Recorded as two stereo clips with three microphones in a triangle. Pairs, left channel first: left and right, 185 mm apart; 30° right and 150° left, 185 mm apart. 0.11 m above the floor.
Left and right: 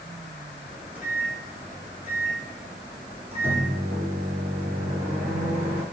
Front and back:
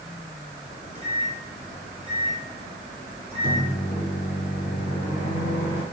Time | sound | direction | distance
0.7 | a microwave | 20° right | 1.6 m